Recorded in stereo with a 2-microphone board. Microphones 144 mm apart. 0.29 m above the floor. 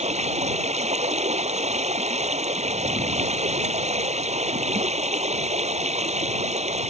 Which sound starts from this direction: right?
Running water, at 0.0 s.